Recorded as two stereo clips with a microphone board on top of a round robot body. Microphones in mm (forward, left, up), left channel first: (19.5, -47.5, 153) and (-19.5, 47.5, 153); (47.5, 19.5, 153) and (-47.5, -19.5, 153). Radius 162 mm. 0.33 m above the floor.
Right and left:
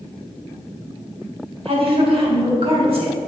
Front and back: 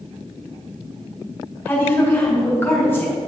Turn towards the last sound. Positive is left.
turn(degrees=90)